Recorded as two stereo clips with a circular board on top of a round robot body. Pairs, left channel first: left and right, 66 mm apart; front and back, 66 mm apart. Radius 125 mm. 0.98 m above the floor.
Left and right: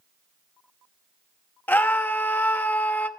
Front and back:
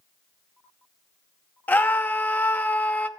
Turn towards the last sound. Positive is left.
turn(degrees=45)